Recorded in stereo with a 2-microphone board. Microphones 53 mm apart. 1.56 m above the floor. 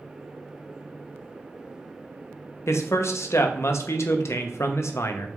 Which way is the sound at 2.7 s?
65° left (ahead or behind).